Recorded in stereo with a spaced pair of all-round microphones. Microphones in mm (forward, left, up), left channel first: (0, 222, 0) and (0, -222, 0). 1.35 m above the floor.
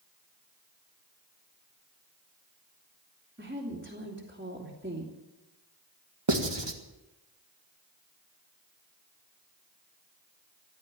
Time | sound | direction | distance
3.4 | a woman speaking | 20° right (ahead or behind) | 3 m
6.3 | writing | 70° right (ahead or behind) | 1.7 m